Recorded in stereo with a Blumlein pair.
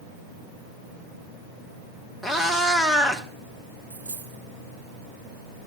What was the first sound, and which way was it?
A cat meowing, 5° right.